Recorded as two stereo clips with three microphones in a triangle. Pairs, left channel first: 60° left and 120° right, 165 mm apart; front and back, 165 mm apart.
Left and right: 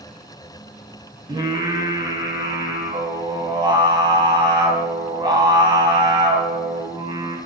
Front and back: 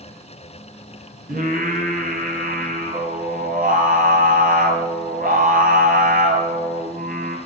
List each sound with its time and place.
1.3 s singing: straight behind, 2 m